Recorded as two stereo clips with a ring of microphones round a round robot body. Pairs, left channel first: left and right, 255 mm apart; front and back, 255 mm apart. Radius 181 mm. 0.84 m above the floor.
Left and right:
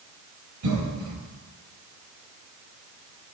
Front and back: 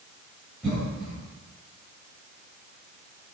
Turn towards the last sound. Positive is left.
turn(degrees=-90)